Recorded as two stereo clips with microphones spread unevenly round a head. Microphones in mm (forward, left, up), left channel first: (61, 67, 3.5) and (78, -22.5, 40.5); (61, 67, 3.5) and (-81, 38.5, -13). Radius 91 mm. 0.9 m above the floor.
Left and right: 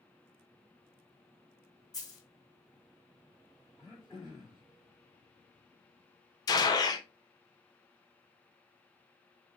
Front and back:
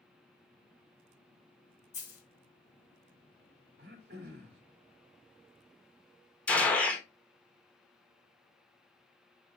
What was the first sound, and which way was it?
A dropped coin, 45° left.